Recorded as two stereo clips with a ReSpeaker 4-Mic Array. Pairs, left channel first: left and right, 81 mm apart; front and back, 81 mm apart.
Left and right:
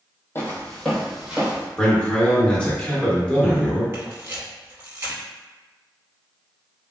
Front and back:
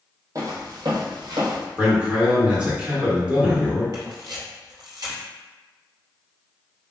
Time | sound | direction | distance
0.3 | footsteps | 145° left | 0.8 m
1.8 | a man speaking | 130° left | 0.9 m
3.9 | a camera shutter | 145° right | 0.9 m